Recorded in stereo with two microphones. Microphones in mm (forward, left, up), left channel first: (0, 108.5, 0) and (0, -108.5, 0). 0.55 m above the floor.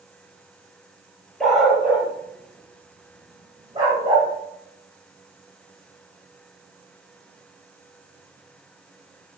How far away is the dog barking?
About 4 m.